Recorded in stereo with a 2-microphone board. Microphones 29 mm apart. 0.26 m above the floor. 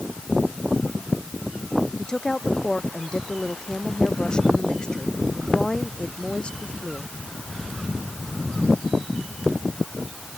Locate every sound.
2.0 s a woman speaking: 25° left (ahead or behind); by 7.1 s 40° left (ahead or behind)